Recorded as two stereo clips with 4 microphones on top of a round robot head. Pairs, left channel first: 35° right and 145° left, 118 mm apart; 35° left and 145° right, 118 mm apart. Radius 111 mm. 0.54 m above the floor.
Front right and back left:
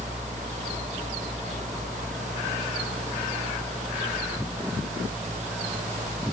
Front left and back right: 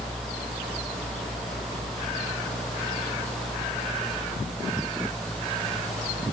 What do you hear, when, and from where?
Only background noise.